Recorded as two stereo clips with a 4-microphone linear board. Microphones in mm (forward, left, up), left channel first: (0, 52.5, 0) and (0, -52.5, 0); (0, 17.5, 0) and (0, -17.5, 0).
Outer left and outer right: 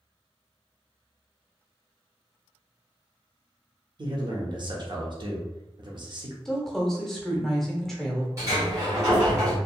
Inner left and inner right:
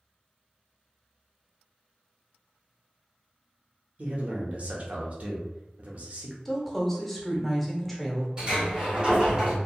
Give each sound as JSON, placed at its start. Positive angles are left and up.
{"t": 4.0, "sound": "a man speaking", "side_deg": -45, "distance_m": 0.7}
{"t": 6.5, "sound": "a woman speaking", "side_deg": 5, "distance_m": 0.8}
{"t": 8.4, "sound": "a sliding door", "side_deg": -30, "distance_m": 1.6}